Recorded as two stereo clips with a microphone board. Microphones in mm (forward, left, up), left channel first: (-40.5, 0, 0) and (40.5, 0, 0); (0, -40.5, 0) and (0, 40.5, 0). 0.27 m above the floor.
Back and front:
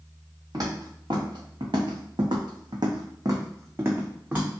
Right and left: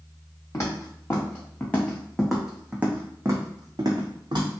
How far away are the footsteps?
About 1.6 m.